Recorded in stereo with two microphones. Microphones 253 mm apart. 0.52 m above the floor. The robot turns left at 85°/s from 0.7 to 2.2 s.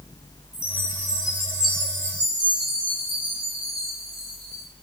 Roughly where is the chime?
Ahead left.